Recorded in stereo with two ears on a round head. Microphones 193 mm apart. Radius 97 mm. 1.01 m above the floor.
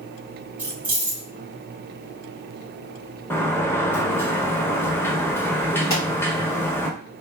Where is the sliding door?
10° left (ahead or behind), 0.6 m.